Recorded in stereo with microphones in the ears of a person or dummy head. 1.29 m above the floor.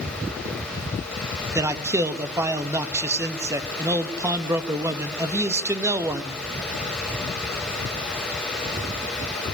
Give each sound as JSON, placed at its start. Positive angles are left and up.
{"t": 1.6, "sound": "a man speaking", "side_deg": -15, "distance_m": 1.7}